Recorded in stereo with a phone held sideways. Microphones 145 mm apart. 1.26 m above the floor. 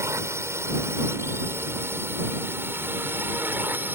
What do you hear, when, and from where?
0.0 s a drone: 20° right (ahead or behind); by 4.0 s 15° right (ahead or behind)